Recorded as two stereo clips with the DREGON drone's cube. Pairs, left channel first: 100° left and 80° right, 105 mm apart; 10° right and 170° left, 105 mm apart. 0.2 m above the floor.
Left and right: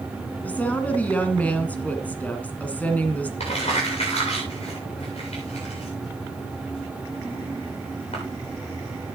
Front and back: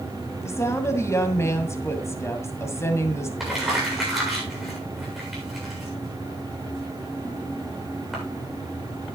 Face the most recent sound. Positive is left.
turn(degrees=80)